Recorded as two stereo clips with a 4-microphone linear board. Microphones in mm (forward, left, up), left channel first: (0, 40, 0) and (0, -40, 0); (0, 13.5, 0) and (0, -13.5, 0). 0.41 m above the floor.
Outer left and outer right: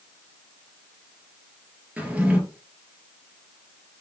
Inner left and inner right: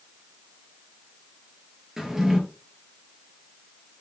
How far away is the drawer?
About 3.5 m.